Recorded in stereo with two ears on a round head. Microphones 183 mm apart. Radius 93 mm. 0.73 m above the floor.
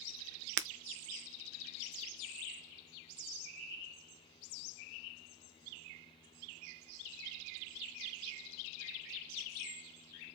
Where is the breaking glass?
60° right (ahead or behind), 0.6 m.